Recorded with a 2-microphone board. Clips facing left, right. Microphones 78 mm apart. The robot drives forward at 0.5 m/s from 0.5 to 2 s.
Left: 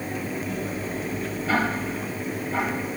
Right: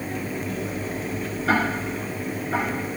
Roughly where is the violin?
No violin in this recording.